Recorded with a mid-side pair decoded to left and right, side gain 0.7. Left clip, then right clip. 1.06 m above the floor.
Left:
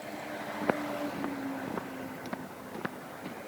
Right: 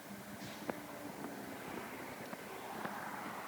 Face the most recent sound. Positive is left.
turn(degrees=35)